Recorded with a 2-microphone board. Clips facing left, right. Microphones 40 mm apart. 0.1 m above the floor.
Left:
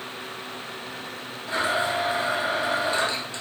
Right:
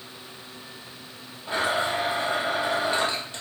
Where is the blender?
25° right (ahead or behind), 1.6 m.